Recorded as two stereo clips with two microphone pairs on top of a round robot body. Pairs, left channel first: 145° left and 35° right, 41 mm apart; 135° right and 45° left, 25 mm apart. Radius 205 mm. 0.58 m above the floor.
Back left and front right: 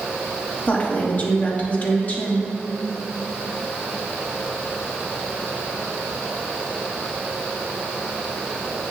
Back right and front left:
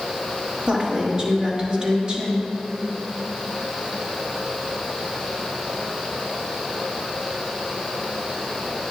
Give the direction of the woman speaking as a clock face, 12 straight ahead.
9 o'clock.